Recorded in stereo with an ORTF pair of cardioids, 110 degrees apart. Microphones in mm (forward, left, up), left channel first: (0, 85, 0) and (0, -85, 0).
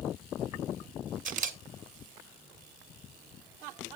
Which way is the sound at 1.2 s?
50° right.